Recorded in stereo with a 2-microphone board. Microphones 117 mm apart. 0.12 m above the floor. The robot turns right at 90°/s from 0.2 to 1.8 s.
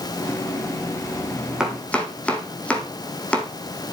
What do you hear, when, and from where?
1.6 s chopping: 5° right (ahead or behind), 2.5 m; by 3.5 s 10° left (ahead or behind), 2.5 m